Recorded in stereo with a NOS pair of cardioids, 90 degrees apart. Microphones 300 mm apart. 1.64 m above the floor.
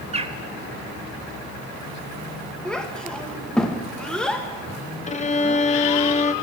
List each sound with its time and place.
0.1 s a bird: 20° right, 0.8 m
2.6 s a child speaking: 5° left, 1.6 m
5.1 s a violin: 25° left, 0.7 m